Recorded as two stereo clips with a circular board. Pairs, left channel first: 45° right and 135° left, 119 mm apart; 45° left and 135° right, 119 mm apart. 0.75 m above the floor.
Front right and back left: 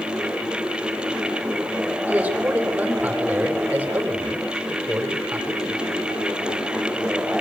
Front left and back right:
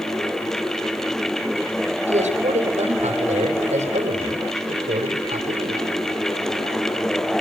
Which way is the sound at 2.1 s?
150° right.